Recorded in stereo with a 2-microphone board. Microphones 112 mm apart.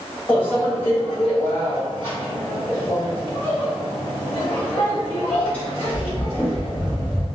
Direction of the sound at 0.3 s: 15° left (ahead or behind).